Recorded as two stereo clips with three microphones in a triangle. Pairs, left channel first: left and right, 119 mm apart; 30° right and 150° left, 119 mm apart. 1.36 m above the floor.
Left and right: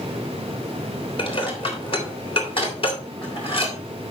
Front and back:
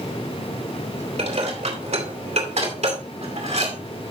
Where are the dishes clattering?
130° left, 3 m.